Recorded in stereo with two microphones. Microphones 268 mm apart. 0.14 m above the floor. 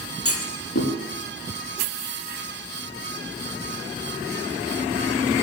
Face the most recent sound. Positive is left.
turn(degrees=55)  # may be behind; listen again after turning